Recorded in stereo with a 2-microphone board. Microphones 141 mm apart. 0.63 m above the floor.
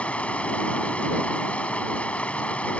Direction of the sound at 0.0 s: 10° left (ahead or behind).